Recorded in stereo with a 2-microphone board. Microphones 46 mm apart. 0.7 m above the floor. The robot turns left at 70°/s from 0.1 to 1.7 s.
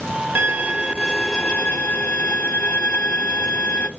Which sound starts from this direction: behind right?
A violin, at 0.3 s.